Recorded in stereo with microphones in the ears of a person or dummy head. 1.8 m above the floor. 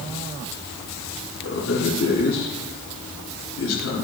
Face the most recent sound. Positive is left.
turn(degrees=85)